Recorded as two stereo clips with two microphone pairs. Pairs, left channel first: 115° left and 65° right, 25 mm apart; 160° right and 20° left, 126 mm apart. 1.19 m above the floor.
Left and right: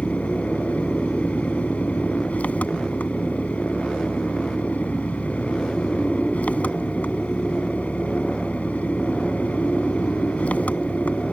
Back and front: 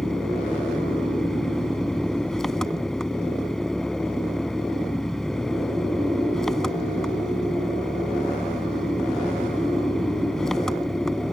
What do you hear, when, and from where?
0.0 s an engine running: 110° left